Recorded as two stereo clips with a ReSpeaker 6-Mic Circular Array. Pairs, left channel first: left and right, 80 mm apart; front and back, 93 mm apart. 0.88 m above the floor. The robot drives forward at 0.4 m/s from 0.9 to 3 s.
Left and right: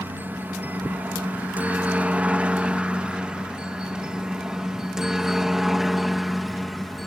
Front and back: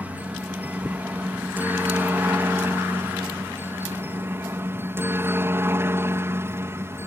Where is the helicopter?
125° right; by 7.1 s straight behind.